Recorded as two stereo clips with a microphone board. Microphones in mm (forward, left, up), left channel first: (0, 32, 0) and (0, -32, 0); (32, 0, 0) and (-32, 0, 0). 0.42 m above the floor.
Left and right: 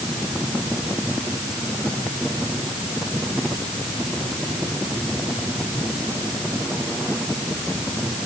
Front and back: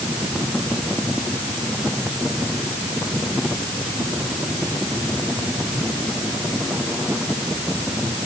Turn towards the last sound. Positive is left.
No sound to turn to.